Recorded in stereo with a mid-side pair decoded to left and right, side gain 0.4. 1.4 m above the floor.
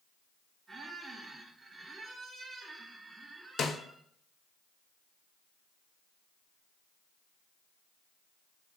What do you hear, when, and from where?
0.7 s a squeak: 35° right, 1.3 m
3.6 s a snare drum: 60° left, 0.6 m